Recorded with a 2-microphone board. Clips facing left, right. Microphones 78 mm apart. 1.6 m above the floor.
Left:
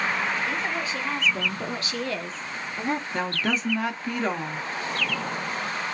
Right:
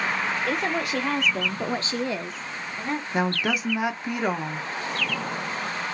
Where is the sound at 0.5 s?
75° right (ahead or behind), 1.0 m; by 3.0 s 25° left (ahead or behind), 0.7 m.